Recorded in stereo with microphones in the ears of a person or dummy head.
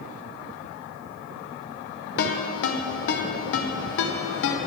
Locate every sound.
2.2 s a ringtone: 60° left (ahead or behind), 0.7 m